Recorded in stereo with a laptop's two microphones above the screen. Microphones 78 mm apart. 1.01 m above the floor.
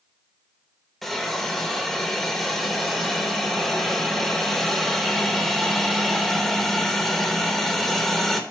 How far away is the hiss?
About 1.0 m.